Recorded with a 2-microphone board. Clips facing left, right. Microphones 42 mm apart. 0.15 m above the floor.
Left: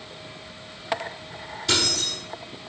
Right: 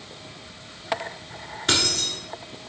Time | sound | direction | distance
1.7 | keys jangling | 50° right (ahead or behind) | 1.2 m